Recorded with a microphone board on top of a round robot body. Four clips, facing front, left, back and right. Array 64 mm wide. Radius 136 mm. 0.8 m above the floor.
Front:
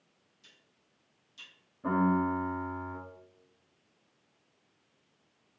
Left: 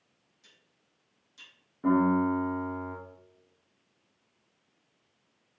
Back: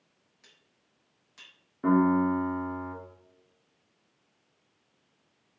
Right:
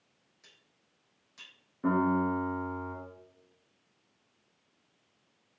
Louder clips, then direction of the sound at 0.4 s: Right 1 dB, back 1 dB; 155° right.